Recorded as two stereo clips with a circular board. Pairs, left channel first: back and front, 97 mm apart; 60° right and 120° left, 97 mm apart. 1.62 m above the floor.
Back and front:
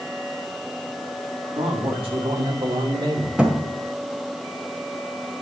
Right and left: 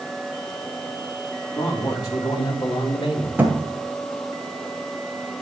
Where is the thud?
70° left, 1.5 m.